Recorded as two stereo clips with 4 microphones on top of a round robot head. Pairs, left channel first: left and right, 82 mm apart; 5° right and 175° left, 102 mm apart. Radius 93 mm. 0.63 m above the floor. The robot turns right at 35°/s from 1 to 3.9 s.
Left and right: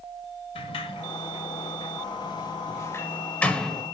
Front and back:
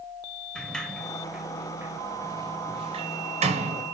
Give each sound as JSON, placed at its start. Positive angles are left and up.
{"t": 0.6, "sound": "a sliding door", "azimuth_deg": 80, "distance_m": 1.5}